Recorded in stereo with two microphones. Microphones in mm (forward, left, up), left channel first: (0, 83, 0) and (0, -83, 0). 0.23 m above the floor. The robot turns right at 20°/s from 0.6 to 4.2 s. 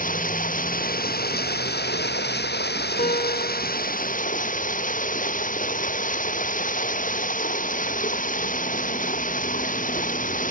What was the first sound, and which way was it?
Running water, 55° left.